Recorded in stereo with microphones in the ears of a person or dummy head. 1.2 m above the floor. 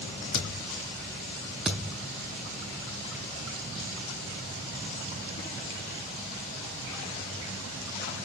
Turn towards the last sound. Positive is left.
turn(degrees=0)  # may be behind; listen again after turning